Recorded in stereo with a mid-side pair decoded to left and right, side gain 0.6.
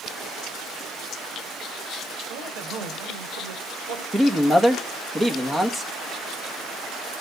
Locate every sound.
2.3 s a man speaking: 60° right, 4 m; by 4.0 s 80° right, 3.5 m
4.1 s a man speaking: 20° right, 2 m